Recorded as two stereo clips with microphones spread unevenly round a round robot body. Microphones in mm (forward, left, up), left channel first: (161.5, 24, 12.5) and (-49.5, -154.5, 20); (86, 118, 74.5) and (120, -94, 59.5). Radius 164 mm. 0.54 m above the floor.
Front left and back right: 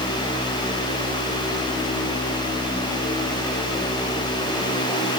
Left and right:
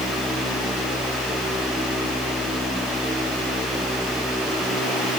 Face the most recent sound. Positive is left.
No sound to turn to.